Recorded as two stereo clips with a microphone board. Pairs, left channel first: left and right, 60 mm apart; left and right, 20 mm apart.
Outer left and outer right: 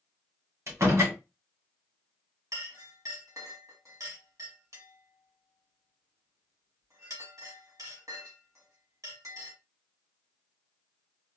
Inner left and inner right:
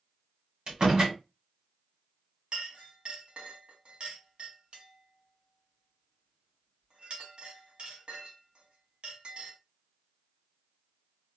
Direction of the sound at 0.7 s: 50° right (ahead or behind).